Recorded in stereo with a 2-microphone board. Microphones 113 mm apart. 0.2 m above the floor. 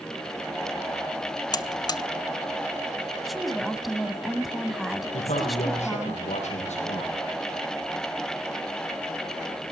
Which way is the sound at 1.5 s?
35° left (ahead or behind).